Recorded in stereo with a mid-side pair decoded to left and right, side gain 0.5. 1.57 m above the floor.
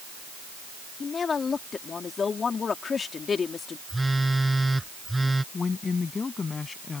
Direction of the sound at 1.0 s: 40° left.